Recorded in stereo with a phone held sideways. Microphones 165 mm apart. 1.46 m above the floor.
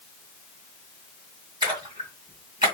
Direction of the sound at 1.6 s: 30° right (ahead or behind).